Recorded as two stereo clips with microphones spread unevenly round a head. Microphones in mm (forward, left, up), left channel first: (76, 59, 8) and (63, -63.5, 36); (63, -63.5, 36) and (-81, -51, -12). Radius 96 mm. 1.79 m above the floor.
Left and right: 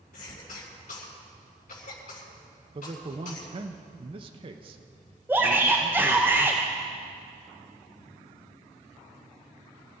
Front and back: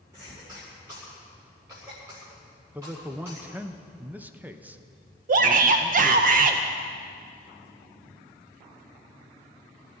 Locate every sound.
0.1 s a cough: 100° left, 7.5 m
2.8 s a man speaking: 95° right, 0.9 m
5.3 s a shout: 160° right, 0.7 m